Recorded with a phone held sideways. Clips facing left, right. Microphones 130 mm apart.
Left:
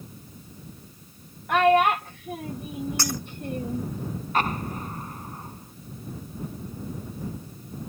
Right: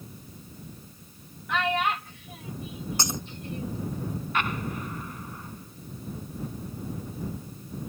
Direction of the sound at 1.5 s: 50° left (ahead or behind).